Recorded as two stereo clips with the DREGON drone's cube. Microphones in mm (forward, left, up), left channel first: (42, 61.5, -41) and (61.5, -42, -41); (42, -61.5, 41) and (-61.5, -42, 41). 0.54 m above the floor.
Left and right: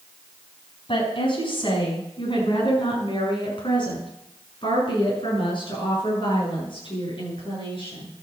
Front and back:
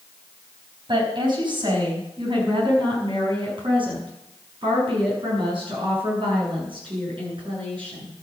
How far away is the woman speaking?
About 5 m.